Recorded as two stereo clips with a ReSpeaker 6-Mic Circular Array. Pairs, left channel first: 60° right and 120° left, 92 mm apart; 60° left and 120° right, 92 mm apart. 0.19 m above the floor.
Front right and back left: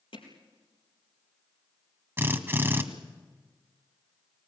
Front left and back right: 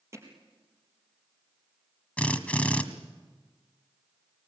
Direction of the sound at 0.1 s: 60° right.